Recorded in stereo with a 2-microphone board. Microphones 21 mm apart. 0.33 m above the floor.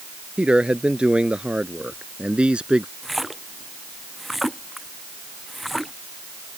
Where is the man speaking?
70° right (ahead or behind); by 2.9 s 60° right (ahead or behind).